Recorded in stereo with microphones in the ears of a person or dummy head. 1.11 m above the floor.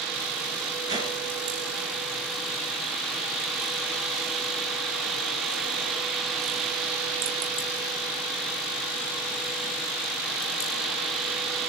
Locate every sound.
0.9 s a whoosh: 35° right (ahead or behind), 3 m